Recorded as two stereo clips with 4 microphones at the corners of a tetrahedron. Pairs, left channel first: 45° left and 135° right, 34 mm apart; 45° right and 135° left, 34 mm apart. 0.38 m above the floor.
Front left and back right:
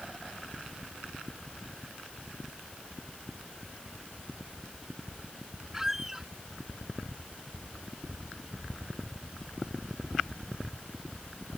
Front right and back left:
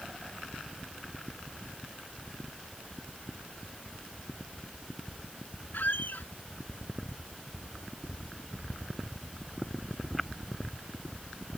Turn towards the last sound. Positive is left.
turn(degrees=-55)